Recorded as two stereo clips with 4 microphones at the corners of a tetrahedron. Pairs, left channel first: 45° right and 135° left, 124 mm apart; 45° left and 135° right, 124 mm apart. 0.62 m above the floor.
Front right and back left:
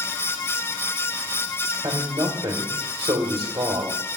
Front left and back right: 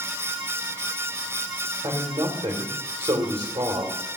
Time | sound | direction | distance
1.8 | a man speaking | 170° right | 1.7 m